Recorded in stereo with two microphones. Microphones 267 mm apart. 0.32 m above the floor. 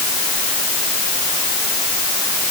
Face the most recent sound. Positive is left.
No sound to turn to.